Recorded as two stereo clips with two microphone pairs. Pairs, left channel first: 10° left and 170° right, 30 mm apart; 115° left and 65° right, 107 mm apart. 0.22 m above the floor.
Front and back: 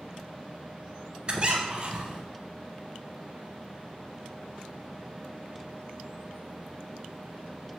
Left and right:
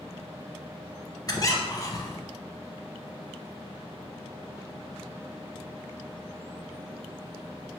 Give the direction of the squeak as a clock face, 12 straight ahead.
7 o'clock.